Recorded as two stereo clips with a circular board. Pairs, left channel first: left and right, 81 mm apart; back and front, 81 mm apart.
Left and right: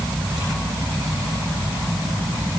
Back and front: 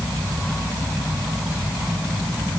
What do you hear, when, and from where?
Only background noise.